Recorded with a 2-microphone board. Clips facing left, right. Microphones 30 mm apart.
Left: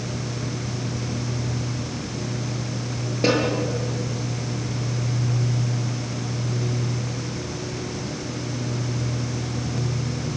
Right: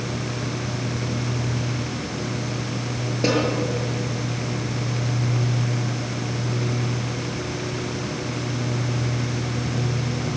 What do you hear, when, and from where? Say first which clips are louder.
3.2 s a snare drum: left 1 dB; 10° left (ahead or behind), 7.5 m